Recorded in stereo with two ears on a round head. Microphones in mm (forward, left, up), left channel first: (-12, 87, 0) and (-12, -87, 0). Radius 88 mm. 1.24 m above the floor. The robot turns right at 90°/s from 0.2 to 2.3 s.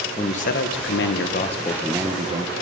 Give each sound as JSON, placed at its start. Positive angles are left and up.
{"t": 0.2, "sound": "a man speaking", "azimuth_deg": 25, "distance_m": 1.3}